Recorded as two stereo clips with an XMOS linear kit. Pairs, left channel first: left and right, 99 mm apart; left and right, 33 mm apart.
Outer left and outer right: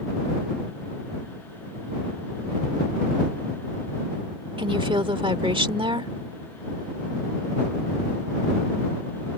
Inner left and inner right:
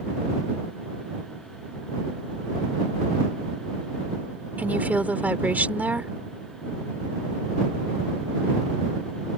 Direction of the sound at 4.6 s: 60° right (ahead or behind).